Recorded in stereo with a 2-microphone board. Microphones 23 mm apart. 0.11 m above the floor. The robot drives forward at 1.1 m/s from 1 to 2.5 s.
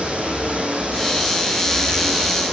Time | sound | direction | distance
0.0 | running water | 70° right (ahead or behind) | 3 m